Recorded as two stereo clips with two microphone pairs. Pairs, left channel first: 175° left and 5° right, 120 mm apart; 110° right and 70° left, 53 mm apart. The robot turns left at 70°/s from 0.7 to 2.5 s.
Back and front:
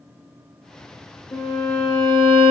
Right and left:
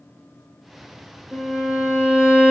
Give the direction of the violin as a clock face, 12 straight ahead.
7 o'clock.